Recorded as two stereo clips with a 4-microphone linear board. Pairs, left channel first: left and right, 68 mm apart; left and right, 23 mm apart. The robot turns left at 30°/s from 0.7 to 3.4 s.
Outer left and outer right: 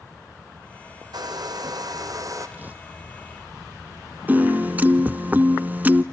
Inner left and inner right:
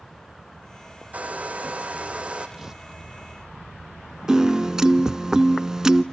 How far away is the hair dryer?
About 3 m.